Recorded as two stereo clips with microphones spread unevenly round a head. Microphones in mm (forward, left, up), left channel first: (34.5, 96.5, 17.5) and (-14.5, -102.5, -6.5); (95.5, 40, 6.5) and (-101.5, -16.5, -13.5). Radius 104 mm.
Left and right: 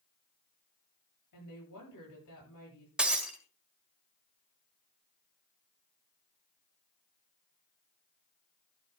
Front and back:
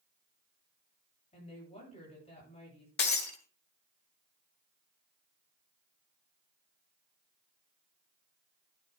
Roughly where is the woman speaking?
Left.